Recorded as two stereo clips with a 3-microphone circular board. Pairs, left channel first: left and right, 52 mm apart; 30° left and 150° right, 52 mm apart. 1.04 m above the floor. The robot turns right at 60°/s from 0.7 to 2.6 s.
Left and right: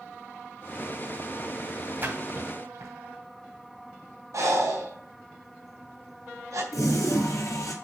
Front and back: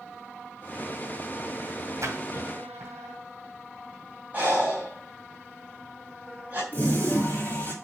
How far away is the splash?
About 2 m.